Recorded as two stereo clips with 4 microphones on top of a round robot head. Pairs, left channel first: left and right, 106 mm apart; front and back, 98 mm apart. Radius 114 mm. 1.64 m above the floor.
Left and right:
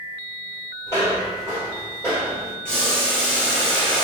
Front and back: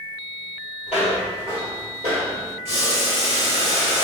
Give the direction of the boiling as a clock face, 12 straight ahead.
6 o'clock.